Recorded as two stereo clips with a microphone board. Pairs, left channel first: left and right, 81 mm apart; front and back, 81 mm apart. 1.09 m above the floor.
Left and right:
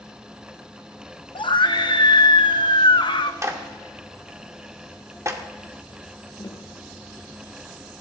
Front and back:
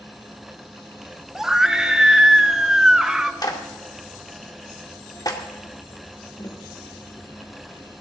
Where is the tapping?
45° left, 1.8 m.